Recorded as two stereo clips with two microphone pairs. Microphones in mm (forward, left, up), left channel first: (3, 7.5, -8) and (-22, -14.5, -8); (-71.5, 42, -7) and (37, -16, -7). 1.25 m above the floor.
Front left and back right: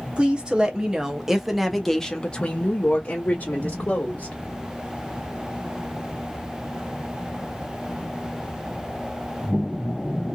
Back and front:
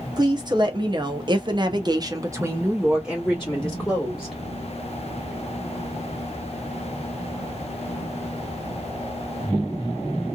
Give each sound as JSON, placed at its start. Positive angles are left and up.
{"t": 0.2, "sound": "a woman speaking", "azimuth_deg": -80, "distance_m": 1.2}